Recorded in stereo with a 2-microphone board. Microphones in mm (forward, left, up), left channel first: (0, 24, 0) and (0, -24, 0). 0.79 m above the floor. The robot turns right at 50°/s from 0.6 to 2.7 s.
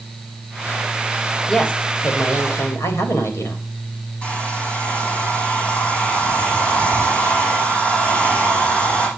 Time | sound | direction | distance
1.5 | a woman speaking | 15° left | 3 m
4.2 | a hair dryer | 25° left (ahead or behind) | 8.5 m